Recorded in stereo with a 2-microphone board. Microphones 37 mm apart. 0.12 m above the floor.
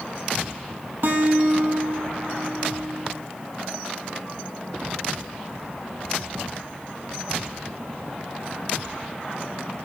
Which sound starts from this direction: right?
A guitar, at 1.0 s.